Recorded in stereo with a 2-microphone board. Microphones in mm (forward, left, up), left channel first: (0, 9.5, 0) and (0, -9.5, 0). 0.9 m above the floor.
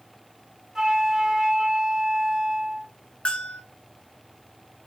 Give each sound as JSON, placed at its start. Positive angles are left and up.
{"t": 0.8, "sound": "a flute", "side_deg": -30, "distance_m": 3.5}
{"t": 3.2, "sound": "a bell", "side_deg": 70, "distance_m": 3.0}